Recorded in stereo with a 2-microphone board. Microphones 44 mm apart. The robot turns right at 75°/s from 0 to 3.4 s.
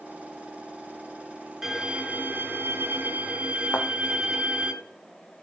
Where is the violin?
165° right, 2.5 m; by 4.7 s 35° right, 2.5 m.